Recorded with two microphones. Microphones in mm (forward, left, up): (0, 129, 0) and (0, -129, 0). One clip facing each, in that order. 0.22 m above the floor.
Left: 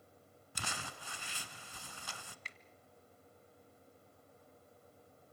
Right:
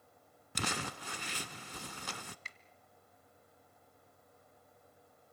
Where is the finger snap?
50° right (ahead or behind), 1.1 m.